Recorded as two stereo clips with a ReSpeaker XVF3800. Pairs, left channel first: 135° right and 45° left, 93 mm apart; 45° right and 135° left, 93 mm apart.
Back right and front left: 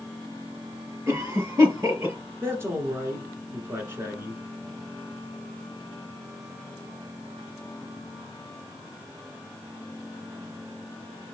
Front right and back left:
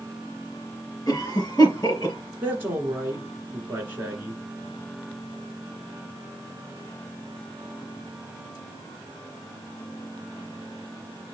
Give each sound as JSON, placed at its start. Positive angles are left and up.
{"t": 1.1, "sound": "a cough", "azimuth_deg": 0, "distance_m": 3.0}
{"t": 2.4, "sound": "a man speaking", "azimuth_deg": 85, "distance_m": 1.7}